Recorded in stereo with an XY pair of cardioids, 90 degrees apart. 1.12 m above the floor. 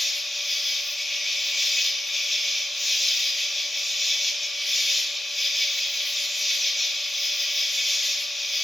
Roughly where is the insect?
Ahead.